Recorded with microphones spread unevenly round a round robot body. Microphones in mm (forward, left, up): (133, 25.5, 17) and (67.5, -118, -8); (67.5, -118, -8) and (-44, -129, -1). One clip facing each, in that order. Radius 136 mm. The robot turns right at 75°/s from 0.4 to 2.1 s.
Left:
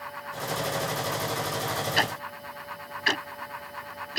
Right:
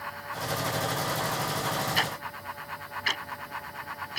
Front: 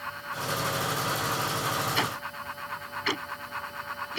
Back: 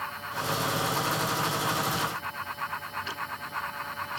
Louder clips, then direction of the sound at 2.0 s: Left 3 dB, front 1 dB; 25° left.